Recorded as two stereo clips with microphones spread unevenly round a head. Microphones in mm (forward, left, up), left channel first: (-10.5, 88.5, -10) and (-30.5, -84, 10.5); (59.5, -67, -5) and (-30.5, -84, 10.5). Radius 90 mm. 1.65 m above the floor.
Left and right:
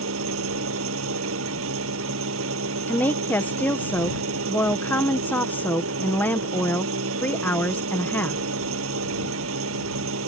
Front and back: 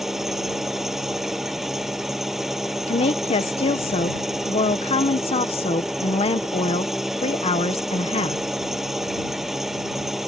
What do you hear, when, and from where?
0.0 s an engine running: 85° right
2.9 s a woman speaking: straight ahead